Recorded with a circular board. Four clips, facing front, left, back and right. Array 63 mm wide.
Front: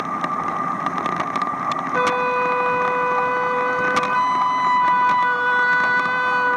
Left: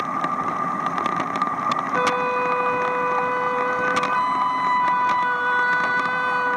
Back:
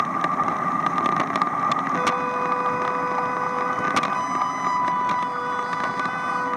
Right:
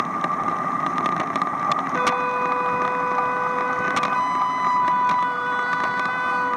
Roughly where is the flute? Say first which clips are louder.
Left 1 dB, front 4 dB; ahead.